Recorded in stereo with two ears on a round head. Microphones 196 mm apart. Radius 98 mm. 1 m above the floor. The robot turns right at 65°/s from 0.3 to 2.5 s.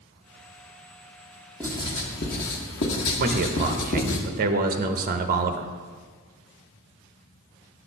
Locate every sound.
1.6 s writing: 5° left, 1.2 m; by 4.2 s 65° left, 1.2 m
3.2 s a man speaking: 40° right (ahead or behind), 0.7 m